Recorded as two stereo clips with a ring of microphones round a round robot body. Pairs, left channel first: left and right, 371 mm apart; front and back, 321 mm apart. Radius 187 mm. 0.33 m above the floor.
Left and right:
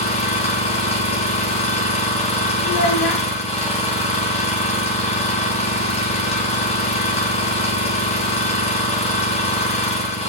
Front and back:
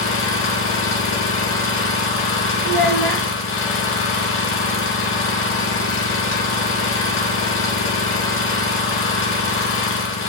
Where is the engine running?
25° left, 1.0 m.